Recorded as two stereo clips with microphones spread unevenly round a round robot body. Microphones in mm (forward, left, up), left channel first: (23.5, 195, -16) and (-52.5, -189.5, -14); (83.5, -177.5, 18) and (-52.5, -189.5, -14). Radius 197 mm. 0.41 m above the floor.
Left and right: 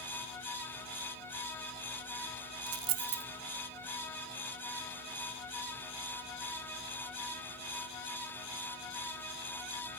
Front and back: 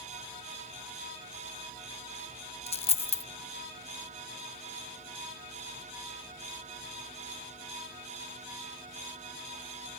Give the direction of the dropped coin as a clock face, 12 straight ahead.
1 o'clock.